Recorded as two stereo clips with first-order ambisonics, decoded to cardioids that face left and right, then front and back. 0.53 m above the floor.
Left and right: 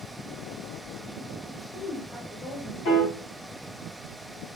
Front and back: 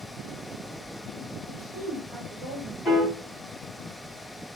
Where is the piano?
80° left, 1.8 m.